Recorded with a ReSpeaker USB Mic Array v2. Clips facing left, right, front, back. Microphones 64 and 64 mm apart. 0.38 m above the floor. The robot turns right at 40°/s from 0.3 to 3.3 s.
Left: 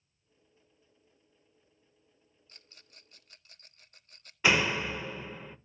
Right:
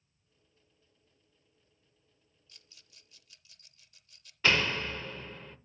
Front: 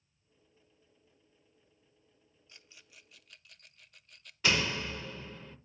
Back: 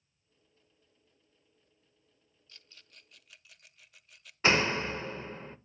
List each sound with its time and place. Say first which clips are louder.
2.5 s a rattle: left 4 dB, front 1 dB; 60° left, 0.7 m; by 4.3 s 95° left, 0.7 m
4.4 s a door slam: left 2 dB, back 4 dB; 160° left, 0.8 m